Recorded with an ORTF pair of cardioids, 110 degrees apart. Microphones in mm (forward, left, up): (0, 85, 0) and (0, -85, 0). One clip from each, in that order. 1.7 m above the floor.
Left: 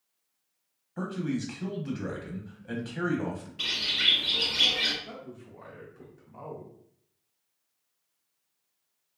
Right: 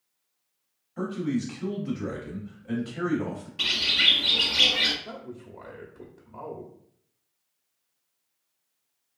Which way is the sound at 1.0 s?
15° left.